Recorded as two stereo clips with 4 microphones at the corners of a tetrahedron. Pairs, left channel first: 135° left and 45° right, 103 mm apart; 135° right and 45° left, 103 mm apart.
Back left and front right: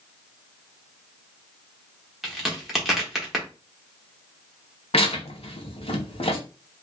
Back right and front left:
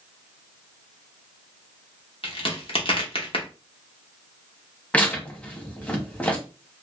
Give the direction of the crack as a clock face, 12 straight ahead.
4 o'clock.